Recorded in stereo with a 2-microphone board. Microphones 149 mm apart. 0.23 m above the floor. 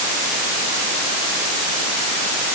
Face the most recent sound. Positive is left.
No sound to turn to.